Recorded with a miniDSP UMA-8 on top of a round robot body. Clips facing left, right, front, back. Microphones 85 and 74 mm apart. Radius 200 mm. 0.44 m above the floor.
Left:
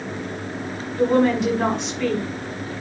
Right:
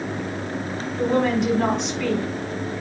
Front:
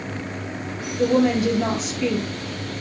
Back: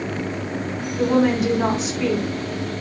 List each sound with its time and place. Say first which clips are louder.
1.0 s a woman speaking: left 3 dB, even; 175° left, 5.5 m